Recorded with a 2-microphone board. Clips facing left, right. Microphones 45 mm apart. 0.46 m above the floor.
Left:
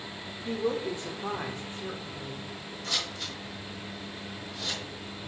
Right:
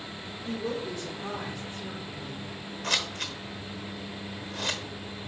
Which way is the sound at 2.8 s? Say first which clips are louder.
Right 4 dB; 55° right (ahead or behind).